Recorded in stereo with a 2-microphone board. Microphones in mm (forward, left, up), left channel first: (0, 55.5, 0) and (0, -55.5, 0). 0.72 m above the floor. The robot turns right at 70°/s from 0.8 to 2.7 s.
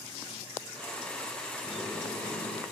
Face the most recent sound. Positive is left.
turn(degrees=65)